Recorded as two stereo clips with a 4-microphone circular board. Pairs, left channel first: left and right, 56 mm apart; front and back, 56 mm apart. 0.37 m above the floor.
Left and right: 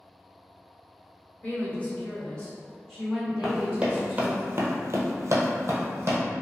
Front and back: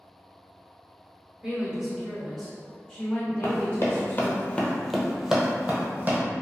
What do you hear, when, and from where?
1.4 s a woman speaking: 115° left, 1.3 m; by 4.4 s 35° right, 1.3 m
3.4 s running footsteps: 15° right, 0.8 m; by 6.2 s 130° right, 1.0 m